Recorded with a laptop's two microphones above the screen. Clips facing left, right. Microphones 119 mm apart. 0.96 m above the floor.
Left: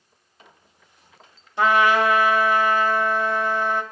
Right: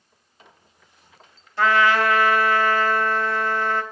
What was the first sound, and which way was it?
A trumpet, 20° left (ahead or behind).